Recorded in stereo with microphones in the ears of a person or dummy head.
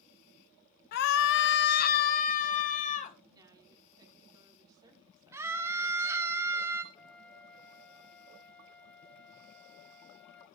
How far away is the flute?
About 0.6 m.